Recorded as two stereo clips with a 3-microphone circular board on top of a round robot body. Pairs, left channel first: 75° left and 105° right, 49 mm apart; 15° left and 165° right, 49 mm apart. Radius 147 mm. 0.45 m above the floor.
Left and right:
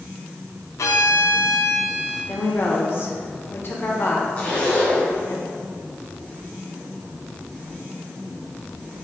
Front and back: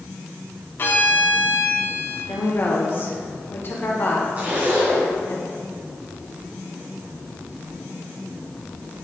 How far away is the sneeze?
No sneeze in this recording.